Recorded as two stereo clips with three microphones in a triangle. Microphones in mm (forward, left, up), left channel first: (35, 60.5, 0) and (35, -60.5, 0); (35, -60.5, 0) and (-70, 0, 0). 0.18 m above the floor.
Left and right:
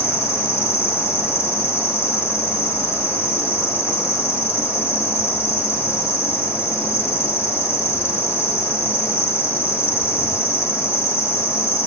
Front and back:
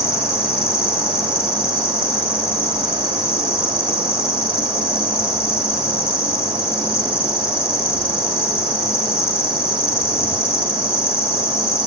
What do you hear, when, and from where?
0.0 s an insect: 150° left, 1.3 m